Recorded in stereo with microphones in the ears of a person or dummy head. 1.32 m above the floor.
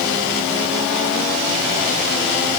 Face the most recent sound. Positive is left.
No sound to turn to.